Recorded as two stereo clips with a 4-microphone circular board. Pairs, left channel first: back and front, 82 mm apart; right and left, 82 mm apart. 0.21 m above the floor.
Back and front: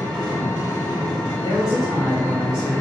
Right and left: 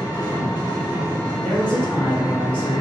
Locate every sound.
0.0 s an engine running: 115° right, 1.7 m
1.4 s a woman speaking: 155° right, 2.0 m